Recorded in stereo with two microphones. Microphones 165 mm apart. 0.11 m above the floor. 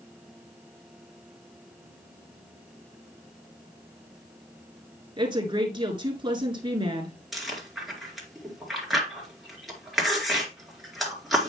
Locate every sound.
5.2 s a woman speaking: 30° right (ahead or behind), 1.5 m
7.3 s chewing: centre (ahead or behind), 2 m